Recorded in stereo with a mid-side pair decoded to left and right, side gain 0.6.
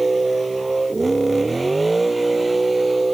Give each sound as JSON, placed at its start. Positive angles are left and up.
{"t": 0.0, "sound": "a vehicle", "azimuth_deg": -20}